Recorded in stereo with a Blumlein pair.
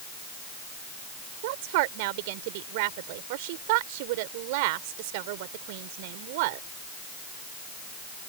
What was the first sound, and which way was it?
A woman speaking, 50° right.